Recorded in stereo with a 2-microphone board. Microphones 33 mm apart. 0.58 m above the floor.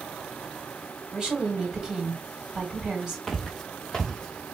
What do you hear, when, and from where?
1.1 s a woman speaking: 15° right (ahead or behind), 2 m
3.3 s footsteps: 10° left (ahead or behind), 1.0 m; by 4.5 s 20° left (ahead or behind), 1.7 m